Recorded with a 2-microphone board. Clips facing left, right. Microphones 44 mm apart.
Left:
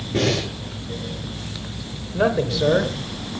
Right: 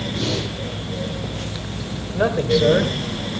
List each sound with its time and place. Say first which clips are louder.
0.1 s breathing: left 6 dB; 60° left (ahead or behind), 8 m
2.1 s a man speaking: right 2 dB; centre (ahead or behind), 1.8 m